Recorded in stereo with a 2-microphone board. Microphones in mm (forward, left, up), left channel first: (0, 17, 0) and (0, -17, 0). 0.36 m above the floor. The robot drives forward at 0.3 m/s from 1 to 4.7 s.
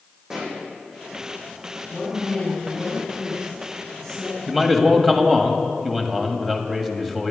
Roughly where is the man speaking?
Centre.